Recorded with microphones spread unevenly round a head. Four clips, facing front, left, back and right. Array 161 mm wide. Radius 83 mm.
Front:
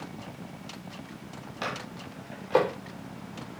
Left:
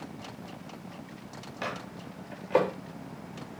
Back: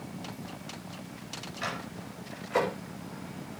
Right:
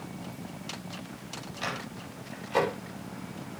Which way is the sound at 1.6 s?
40° left.